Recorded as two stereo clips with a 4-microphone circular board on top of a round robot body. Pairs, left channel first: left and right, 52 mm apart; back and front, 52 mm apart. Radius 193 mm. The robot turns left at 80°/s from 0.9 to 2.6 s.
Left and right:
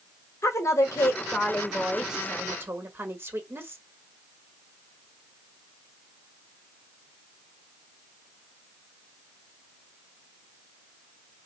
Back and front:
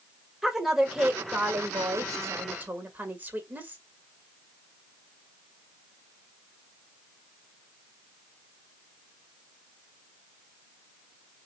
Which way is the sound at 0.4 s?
85° left.